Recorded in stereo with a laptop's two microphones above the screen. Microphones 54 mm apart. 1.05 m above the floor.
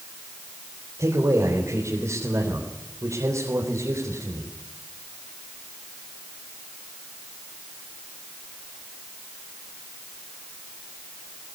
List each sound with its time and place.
1.0 s a man speaking: 70° right (ahead or behind), 4 m